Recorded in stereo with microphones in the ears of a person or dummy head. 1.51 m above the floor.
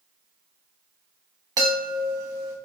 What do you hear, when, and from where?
1.6 s a chime: 25° right (ahead or behind), 1.0 m